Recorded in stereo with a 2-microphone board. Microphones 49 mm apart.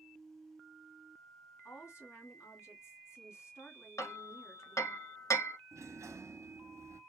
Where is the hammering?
75° left (ahead or behind), 1.0 m.